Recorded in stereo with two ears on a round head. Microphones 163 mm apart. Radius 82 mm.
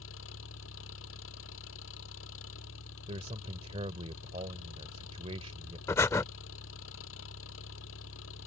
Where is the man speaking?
35° right (ahead or behind).